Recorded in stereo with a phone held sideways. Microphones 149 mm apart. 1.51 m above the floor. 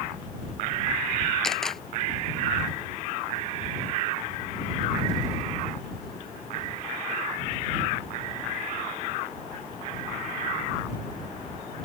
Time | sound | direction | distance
1.4 | a camera shutter | centre (ahead or behind) | ?